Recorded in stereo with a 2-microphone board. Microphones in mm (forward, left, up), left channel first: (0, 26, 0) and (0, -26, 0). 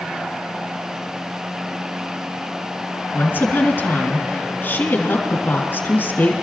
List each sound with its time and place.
3.1 s a woman speaking: 45° left (ahead or behind), 3 m